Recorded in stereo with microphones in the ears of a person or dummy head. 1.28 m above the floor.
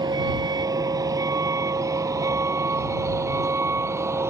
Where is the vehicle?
25° right (ahead or behind); by 4.3 s 15° right (ahead or behind).